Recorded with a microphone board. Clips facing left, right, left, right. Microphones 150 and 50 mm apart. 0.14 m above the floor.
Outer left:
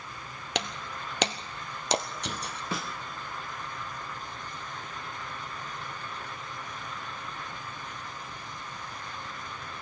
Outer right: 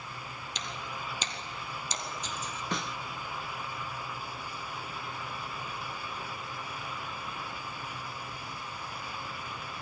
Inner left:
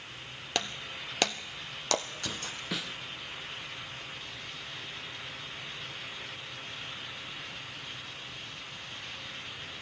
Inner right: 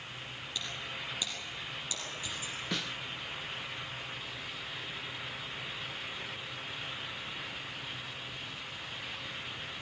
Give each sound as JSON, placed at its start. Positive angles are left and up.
{"t": 0.6, "sound": "breaking glass", "side_deg": 75, "distance_m": 1.4}
{"t": 2.7, "sound": "a snare drum", "side_deg": 5, "distance_m": 1.2}